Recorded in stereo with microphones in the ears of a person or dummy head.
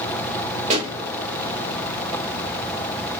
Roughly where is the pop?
Right.